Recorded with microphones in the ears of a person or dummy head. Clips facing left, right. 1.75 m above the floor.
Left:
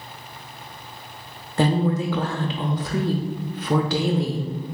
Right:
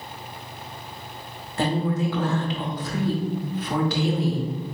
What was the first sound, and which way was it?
A woman speaking, 55° left (ahead or behind).